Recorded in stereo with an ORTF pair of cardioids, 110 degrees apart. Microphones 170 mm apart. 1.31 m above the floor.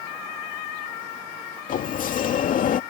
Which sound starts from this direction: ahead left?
A sliding door, at 1.7 s.